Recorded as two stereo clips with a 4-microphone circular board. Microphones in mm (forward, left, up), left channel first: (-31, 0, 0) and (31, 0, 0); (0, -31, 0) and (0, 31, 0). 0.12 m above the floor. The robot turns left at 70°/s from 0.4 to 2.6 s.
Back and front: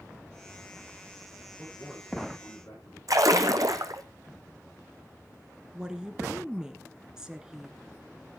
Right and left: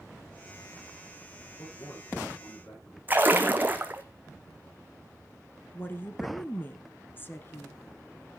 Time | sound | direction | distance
1.6 | a man speaking | 65° right | 10 m
3.1 | a splash | 30° left | 1.1 m
5.7 | a woman speaking | 75° right | 1.4 m